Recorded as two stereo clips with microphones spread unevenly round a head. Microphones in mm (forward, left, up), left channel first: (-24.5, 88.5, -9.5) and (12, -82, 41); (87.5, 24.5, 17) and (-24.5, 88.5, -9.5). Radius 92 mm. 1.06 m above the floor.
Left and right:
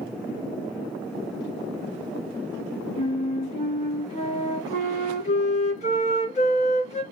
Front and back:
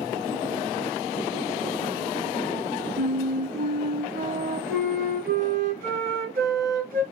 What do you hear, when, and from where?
3.0 s a flute: 160° left, 2.5 m